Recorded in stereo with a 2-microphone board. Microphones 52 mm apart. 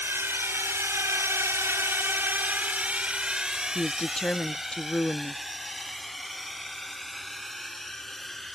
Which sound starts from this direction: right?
A drone, at 0.0 s.